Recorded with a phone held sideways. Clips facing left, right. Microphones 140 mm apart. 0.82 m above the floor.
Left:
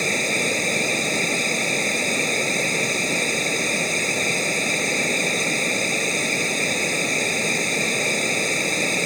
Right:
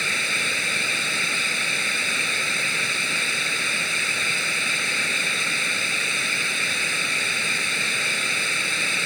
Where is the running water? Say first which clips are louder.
Left 8 dB; 40° left (ahead or behind).